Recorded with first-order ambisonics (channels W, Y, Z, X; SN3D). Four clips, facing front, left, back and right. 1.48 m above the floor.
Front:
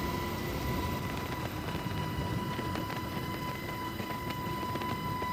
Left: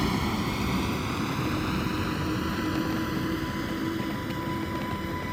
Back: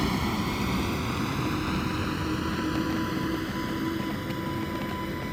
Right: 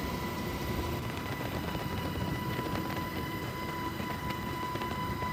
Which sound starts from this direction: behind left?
A vehicle, at 0.0 s.